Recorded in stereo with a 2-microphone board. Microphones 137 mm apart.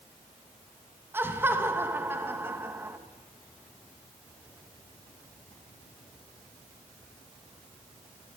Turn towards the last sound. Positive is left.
turn(degrees=-15)  # may be behind; listen again after turning